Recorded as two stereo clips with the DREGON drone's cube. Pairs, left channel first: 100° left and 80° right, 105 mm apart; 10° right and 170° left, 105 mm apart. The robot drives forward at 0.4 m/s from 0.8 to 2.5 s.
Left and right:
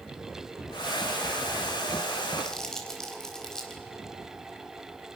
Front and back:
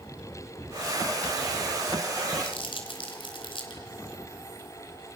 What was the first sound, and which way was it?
Crumpling, 15° left.